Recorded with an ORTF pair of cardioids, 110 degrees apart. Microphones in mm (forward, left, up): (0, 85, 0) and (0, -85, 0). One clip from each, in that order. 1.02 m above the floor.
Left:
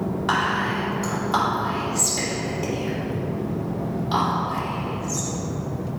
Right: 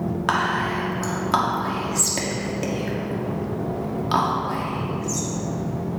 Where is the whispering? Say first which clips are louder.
Even; 40° right, 2 m.